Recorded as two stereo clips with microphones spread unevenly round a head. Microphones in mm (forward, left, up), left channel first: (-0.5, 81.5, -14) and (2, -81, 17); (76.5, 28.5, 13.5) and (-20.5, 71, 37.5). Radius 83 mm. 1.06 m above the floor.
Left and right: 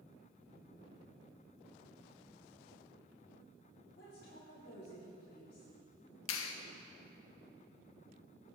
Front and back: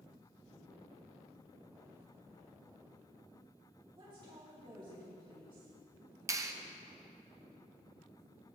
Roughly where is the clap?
Left.